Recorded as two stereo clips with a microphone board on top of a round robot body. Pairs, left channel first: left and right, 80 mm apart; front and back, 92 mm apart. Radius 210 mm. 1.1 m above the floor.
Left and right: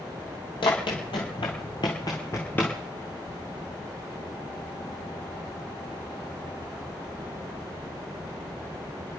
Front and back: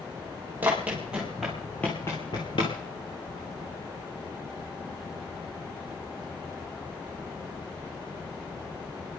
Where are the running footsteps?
110° left, 1.7 m; by 2.8 s 20° left, 1.3 m.